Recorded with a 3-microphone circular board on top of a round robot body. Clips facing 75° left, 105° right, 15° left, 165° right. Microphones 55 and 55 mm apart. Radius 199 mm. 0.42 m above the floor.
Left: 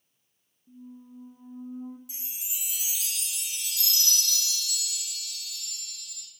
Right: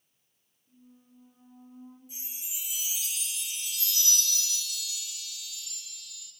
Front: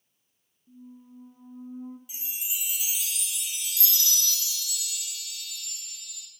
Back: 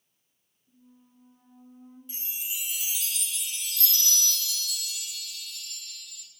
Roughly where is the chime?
Left.